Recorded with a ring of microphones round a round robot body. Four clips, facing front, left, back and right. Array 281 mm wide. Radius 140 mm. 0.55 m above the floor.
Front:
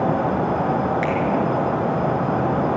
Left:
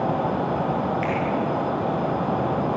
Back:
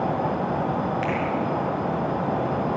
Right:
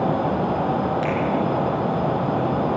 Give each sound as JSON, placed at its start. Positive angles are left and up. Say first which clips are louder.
{"t": 1.0, "sound": "a finger snap", "louder": "right 2 dB, front 4 dB", "azimuth_deg": -65, "distance_m": 6.5}